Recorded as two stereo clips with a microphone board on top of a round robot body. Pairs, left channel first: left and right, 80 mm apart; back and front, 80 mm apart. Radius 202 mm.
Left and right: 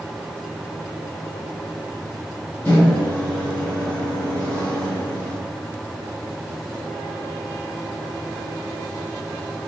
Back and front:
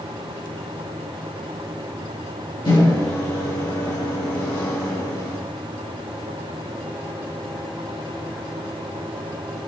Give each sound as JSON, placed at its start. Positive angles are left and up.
{"t": 2.6, "sound": "a microwave", "azimuth_deg": 160, "distance_m": 3.5}